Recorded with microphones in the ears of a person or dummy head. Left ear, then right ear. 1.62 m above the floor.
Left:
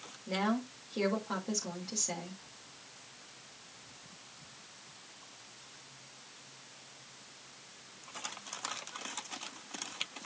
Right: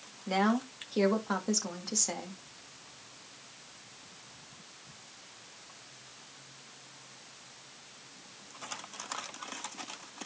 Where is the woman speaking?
80° right, 2.5 m.